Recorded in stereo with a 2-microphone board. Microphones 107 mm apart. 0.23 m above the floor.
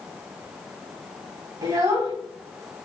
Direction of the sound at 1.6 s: 30° right (ahead or behind).